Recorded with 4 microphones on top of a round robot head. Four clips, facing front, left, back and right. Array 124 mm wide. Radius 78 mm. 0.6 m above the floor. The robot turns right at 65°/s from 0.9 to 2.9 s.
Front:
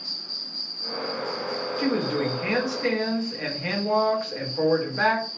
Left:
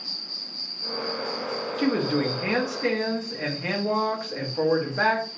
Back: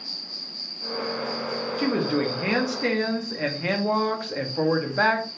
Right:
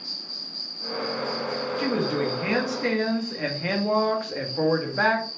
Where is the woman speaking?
125° left, 0.9 m; by 5.3 s 165° right, 0.9 m.